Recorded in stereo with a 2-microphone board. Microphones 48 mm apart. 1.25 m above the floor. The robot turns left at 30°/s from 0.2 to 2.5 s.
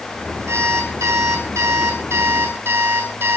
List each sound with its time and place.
0.5 s an alarm clock: 65° right, 6 m; by 3.4 s 125° right, 6 m